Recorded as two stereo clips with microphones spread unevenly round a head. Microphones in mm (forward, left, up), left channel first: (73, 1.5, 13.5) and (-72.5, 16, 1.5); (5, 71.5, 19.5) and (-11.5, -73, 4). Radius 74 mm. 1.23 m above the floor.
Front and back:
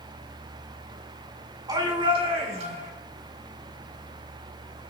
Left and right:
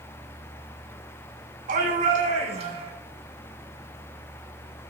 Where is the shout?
120° right, 4.5 m; by 2.9 s 145° right, 4.5 m.